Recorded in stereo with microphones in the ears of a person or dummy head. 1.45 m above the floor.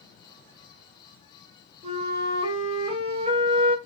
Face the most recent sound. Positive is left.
turn(degrees=-35)  # may be behind; listen again after turning